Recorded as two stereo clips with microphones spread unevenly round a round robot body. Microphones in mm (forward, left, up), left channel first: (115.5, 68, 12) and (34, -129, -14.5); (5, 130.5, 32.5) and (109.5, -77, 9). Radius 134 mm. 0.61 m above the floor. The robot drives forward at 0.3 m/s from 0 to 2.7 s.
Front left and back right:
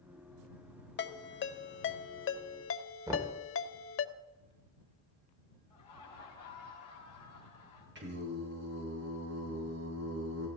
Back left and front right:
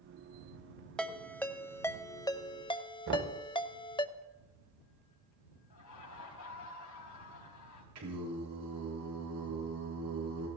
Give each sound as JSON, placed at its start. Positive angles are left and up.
{"t": 1.0, "sound": "a ringtone", "azimuth_deg": 30, "distance_m": 1.3}
{"t": 3.1, "sound": "knocking", "azimuth_deg": -40, "distance_m": 1.9}
{"t": 5.7, "sound": "laughter", "azimuth_deg": 140, "distance_m": 5.0}
{"t": 8.0, "sound": "singing", "azimuth_deg": -80, "distance_m": 5.5}